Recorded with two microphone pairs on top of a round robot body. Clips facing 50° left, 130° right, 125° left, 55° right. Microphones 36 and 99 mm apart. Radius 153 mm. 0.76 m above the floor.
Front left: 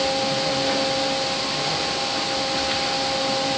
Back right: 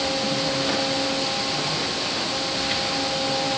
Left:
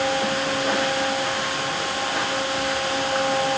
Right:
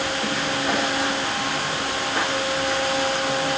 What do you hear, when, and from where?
Only background noise.